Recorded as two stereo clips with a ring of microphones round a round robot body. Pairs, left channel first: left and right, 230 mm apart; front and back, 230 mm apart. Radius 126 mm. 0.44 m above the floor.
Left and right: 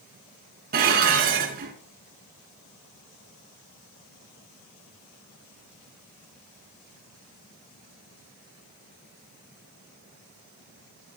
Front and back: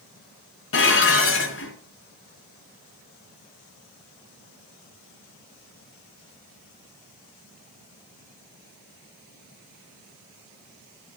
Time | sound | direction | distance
0.7 | dishes clattering | 35° right | 3.5 m